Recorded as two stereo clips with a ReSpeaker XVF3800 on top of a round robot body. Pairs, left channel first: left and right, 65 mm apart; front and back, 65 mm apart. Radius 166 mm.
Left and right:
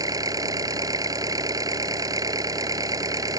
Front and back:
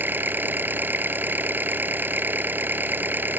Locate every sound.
0.0 s an engine running: 120° right